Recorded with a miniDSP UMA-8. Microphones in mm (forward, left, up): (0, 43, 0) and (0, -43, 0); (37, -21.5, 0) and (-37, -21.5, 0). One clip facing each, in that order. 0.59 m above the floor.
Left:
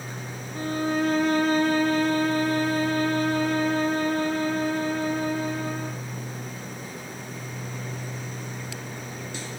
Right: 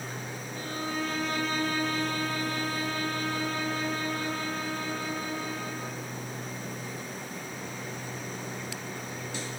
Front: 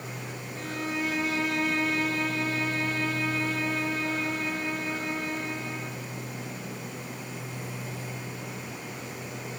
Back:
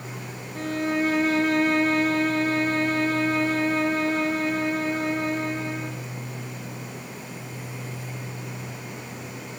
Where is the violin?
130° left, 3 m.